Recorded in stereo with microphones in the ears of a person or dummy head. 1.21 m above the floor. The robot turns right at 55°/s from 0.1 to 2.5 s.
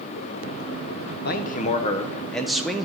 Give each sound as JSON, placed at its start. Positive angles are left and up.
{"t": 1.2, "sound": "a man speaking", "azimuth_deg": 115, "distance_m": 0.8}